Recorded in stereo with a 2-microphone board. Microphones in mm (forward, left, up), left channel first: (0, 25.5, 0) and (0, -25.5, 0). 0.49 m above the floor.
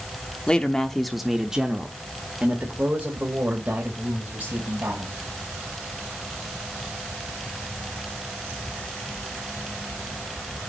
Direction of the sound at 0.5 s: 20° left (ahead or behind).